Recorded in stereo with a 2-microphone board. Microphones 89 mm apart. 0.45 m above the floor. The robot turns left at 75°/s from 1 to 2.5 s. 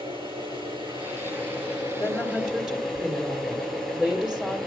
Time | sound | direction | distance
0.0 | an engine running | 70° right | 8.5 m
2.0 | a woman speaking | 35° left | 2 m